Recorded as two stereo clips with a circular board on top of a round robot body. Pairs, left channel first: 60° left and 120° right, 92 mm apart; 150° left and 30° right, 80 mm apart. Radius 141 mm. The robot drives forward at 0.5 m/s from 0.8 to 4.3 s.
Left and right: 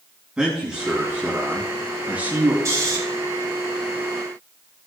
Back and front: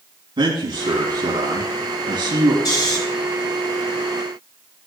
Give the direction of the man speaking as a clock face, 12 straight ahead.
1 o'clock.